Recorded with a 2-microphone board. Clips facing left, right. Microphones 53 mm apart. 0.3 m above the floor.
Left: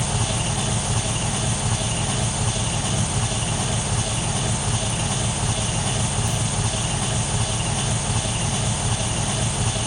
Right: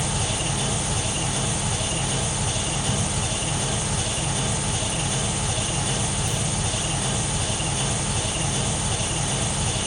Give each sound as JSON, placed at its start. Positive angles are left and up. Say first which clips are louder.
{"t": 0.0, "sound": "an engine running", "louder": "left 1 dB", "side_deg": 60, "distance_m": 1.5}
{"t": 2.9, "sound": "ticking", "louder": "right 1 dB", "side_deg": -60, "distance_m": 1.2}